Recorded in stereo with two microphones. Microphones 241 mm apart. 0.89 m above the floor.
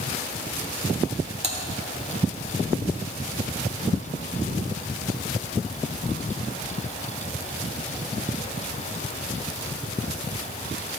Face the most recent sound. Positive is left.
turn(degrees=-30)  # may be behind; listen again after turning